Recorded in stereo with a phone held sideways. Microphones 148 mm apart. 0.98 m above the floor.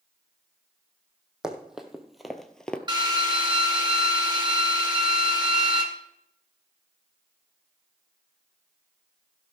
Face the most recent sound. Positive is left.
turn(degrees=-30)  # may be behind; listen again after turning